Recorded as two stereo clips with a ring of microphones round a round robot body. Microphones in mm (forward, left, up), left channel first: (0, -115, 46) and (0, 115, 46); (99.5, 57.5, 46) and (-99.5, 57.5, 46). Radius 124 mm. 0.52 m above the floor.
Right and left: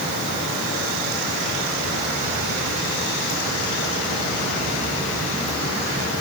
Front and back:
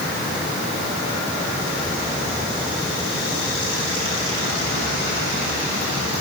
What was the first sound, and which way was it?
Only background noise.